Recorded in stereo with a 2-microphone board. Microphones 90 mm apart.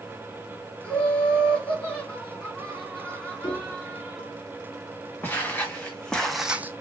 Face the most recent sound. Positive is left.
turn(degrees=-30)  # may be behind; listen again after turning